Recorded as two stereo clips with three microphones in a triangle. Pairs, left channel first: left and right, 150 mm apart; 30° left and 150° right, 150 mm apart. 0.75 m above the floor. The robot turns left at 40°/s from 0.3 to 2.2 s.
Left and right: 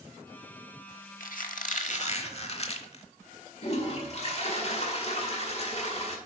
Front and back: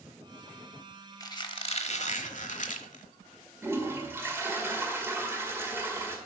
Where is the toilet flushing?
135° left, 1.6 m.